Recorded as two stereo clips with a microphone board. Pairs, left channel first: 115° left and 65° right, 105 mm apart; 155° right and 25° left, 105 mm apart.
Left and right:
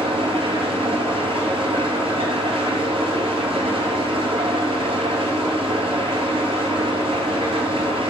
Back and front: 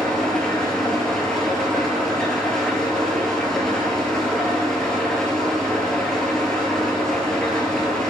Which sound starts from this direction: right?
An engine running, at 0.0 s.